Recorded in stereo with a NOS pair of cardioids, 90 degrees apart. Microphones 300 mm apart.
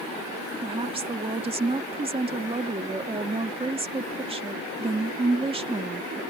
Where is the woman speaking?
20° right.